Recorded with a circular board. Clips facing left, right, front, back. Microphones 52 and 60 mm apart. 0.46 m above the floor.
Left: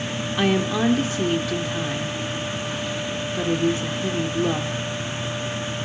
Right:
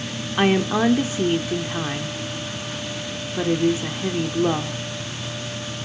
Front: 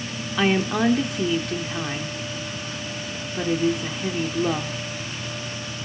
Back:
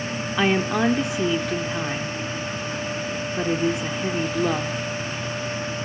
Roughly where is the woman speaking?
Right.